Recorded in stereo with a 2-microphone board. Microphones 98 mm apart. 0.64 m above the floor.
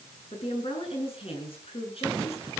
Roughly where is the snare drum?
I don't hear a snare drum.